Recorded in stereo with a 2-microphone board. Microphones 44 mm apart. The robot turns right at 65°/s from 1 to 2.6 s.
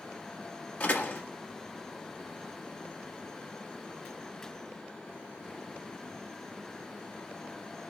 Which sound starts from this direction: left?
A door slam, at 0.8 s.